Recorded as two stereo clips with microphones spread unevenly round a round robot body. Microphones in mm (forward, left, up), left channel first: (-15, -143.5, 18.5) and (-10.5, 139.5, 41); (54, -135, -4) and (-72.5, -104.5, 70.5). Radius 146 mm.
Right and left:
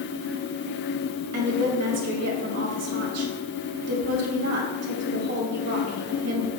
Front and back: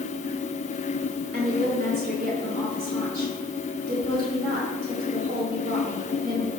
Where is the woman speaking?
110° left, 2.5 m.